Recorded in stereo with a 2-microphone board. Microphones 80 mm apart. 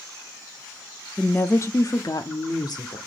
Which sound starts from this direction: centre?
A woman speaking, at 1.2 s.